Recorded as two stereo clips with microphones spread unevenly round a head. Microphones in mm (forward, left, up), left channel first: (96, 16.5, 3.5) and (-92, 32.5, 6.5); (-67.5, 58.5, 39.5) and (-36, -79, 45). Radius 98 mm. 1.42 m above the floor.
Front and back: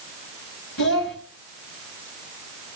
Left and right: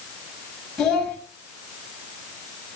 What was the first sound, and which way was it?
A child speaking, 15° left.